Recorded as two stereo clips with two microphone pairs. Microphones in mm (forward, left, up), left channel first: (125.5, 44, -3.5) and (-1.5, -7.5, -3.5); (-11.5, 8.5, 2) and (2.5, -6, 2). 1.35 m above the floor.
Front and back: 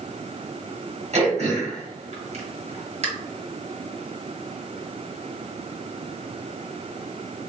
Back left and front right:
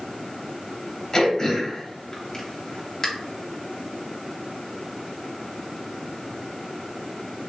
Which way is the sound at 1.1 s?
170° right.